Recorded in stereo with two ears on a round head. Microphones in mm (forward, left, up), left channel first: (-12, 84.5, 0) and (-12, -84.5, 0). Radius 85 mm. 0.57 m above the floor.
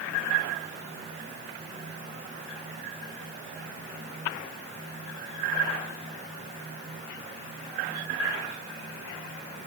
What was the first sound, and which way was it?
Only background noise.